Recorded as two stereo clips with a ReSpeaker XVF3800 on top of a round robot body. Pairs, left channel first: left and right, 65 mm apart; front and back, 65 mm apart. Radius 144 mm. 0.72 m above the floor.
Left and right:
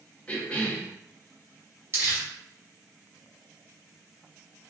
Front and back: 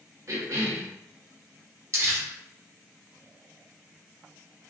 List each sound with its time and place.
0.3 s a cough: 155° left, 1.3 m
1.9 s crumpling: 145° right, 1.6 m